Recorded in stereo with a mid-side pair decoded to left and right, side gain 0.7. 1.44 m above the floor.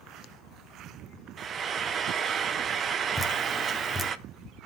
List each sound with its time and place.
1.4 s frying: 40° right, 0.8 m
3.2 s dripping: 10° left, 1.2 m